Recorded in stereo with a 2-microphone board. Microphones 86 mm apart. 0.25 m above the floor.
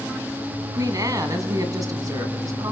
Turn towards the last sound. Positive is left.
turn(degrees=-45)  # may be behind; listen again after turning